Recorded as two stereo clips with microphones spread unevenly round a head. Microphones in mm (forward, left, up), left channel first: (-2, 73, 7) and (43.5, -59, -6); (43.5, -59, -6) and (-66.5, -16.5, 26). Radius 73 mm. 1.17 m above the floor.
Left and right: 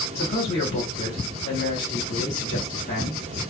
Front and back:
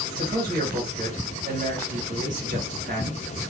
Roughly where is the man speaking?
Behind left.